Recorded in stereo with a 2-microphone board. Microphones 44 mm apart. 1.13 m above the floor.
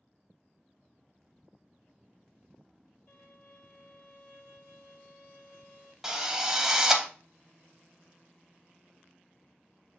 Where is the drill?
10° right (ahead or behind), 0.7 m.